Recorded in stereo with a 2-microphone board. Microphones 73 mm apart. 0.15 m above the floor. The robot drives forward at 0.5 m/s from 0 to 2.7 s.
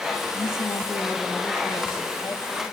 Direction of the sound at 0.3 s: 40° left (ahead or behind).